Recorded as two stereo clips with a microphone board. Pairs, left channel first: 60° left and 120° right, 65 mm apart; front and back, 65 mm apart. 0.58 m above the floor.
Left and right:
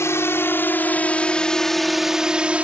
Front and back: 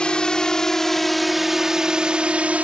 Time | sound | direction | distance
0.0 | a drone | 70° left | ?